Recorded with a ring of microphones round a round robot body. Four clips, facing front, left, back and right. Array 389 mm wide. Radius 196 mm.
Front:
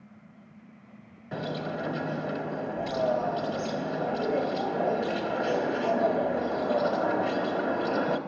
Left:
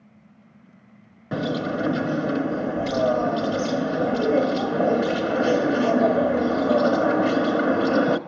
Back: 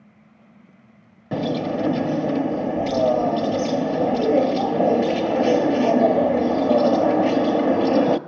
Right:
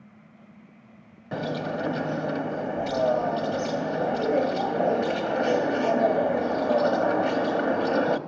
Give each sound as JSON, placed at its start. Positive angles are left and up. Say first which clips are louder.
{"t": 1.3, "sound": "a bird", "louder": "left 4 dB, back 10 dB", "azimuth_deg": 150, "distance_m": 0.7}